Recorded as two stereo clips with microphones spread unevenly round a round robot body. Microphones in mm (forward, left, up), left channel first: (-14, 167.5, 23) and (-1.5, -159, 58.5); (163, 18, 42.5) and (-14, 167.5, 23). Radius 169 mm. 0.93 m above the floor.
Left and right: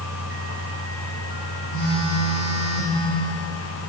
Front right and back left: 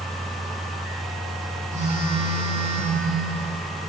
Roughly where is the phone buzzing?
Left.